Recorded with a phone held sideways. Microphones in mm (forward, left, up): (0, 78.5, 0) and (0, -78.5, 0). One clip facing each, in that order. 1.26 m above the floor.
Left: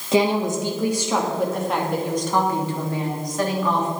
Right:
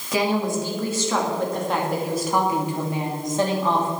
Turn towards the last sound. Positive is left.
turn(degrees=-30)  # may be behind; listen again after turning